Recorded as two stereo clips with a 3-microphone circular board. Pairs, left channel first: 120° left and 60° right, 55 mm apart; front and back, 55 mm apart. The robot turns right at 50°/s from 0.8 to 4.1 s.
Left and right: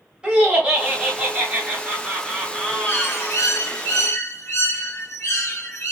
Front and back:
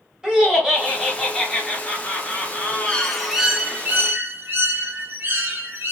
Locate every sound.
0.2 s laughter: 110° right, 0.8 m; by 3.4 s 20° left, 0.8 m
2.8 s a bird: 75° left, 0.6 m; by 5.9 s 135° left, 0.6 m